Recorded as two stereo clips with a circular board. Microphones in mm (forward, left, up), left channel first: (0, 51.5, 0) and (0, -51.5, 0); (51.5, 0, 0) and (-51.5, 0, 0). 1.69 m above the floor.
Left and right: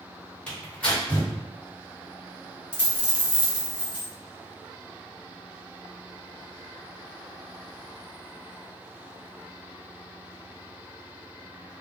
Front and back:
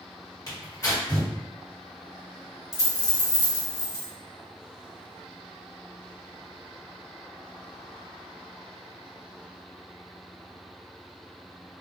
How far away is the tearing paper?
About 1.6 m.